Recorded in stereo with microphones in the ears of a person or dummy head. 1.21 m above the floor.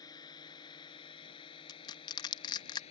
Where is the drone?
20° left (ahead or behind); by 2.9 s 35° left (ahead or behind).